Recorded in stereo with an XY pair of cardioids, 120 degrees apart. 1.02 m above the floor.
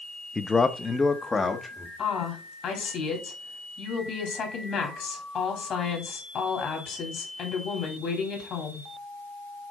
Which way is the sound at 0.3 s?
15° left.